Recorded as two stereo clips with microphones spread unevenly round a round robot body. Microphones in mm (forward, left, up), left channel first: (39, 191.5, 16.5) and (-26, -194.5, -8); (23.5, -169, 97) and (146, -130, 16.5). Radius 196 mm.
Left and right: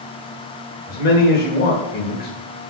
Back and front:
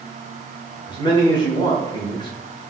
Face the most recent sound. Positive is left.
turn(degrees=100)